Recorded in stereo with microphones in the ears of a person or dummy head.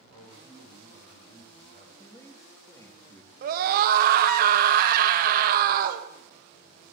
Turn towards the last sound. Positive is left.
turn(degrees=-55)  # may be behind; listen again after turning